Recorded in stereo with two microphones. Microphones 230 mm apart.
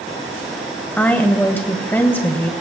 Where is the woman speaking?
10° left (ahead or behind), 1.3 m.